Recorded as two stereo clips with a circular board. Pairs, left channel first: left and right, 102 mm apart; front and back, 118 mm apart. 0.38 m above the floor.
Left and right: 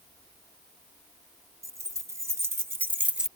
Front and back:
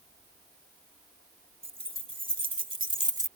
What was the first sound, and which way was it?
Keys jangling, 150° right.